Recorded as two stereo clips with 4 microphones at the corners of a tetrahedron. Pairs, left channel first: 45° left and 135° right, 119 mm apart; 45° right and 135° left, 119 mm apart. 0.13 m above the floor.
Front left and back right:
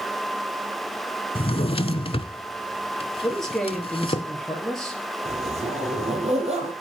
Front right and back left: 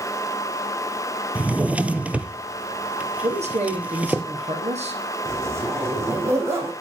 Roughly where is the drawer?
Ahead left.